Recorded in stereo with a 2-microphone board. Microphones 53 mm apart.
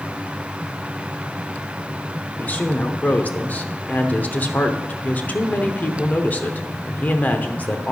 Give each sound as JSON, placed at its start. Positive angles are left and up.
{"t": 2.4, "sound": "a woman speaking", "side_deg": 35, "distance_m": 0.9}